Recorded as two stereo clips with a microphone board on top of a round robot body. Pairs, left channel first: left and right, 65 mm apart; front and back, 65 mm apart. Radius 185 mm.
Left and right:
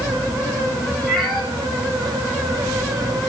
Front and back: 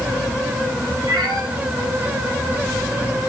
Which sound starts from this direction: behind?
A cat meowing, at 1.1 s.